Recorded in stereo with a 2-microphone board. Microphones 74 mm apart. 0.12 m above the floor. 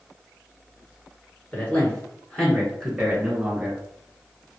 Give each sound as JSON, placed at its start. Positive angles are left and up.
{"t": 1.5, "sound": "a man speaking", "side_deg": 25, "distance_m": 1.8}